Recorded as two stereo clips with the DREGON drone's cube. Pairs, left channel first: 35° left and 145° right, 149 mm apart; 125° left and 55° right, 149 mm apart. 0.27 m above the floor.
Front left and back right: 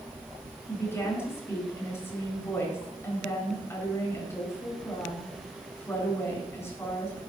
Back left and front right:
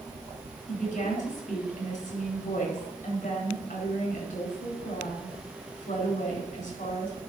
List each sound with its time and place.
0.7 s a woman speaking: 105° left, 4.5 m